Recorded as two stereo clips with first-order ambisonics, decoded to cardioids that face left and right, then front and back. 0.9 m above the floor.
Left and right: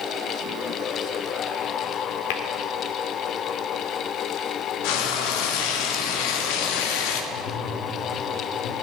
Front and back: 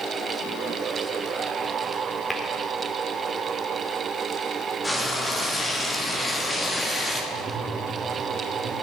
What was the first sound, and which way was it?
Tapping, 90° left.